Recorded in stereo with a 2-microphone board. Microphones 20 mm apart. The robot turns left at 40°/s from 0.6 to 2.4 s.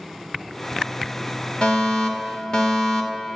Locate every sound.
1.6 s a fire alarm: 85° left, 3 m; by 3.4 s 55° left, 3 m